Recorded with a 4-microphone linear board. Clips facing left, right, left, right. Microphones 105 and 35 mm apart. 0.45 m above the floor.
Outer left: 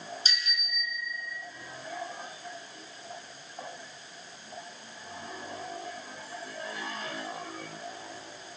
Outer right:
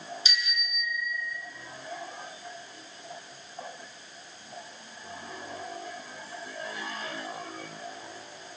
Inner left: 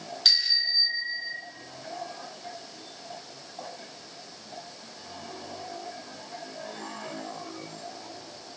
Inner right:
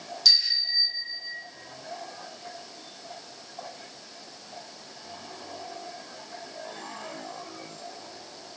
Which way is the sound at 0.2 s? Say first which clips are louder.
Outer right 2 dB, inner right 1 dB; 40° left (ahead or behind).